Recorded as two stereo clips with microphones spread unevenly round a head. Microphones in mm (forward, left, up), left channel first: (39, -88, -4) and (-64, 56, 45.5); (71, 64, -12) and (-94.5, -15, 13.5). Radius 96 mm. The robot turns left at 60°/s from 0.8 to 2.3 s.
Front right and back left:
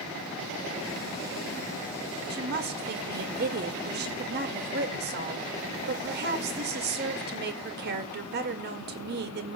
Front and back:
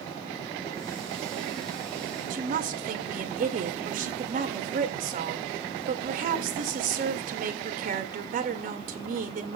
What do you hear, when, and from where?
2.3 s a woman speaking: 160° left, 1.9 m